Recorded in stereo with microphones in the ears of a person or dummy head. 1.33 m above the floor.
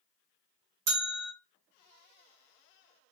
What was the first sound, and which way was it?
A bell, 60° right (ahead or behind).